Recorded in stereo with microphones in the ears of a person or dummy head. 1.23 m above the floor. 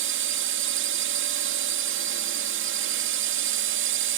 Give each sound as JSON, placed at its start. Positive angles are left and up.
{"t": 0.0, "sound": "a drone", "side_deg": -60}